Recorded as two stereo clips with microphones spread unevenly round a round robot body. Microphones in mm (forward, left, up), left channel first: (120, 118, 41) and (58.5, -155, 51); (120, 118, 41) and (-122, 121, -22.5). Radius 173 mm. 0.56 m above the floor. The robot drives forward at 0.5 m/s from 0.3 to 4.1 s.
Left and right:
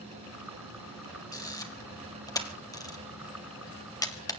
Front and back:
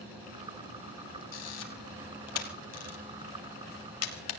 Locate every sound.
1.3 s a camera shutter: straight ahead, 4 m